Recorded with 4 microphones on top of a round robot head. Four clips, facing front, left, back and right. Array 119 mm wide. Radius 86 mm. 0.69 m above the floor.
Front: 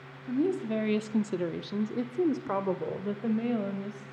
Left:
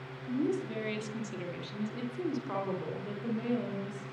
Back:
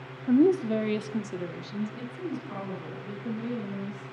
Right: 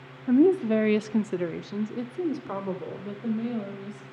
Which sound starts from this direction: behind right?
A woman speaking, at 0.3 s.